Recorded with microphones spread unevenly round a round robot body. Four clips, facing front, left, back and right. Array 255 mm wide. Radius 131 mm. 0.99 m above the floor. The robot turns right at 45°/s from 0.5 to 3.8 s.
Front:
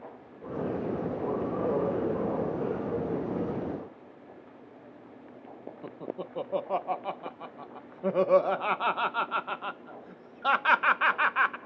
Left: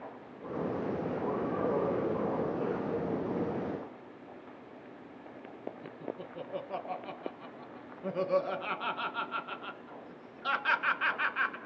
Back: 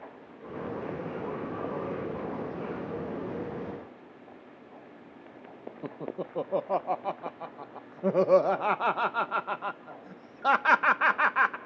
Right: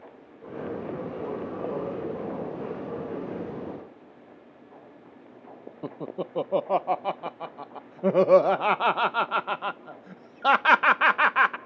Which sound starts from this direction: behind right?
Laughter, at 5.8 s.